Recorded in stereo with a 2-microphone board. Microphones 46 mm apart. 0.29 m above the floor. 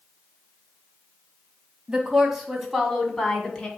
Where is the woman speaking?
15° right (ahead or behind), 1.7 m; by 3.7 s 15° left (ahead or behind), 2.5 m.